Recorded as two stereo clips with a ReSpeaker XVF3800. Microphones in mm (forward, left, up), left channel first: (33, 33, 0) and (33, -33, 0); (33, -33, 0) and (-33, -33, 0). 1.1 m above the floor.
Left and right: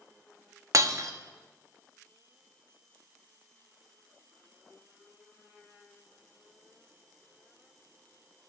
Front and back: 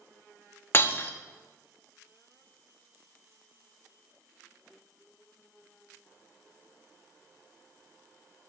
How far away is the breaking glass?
About 0.9 m.